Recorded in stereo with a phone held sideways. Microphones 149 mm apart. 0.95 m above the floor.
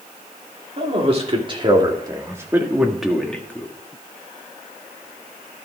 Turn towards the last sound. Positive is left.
turn(degrees=15)  # may be behind; listen again after turning